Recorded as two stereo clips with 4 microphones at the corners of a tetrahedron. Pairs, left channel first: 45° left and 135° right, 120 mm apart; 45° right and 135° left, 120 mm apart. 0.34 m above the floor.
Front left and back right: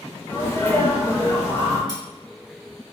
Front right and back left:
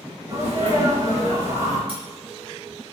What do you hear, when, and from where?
0.3 s a sneeze: 105° left, 0.9 m
1.9 s cutlery clinking: 100° left, 1.7 m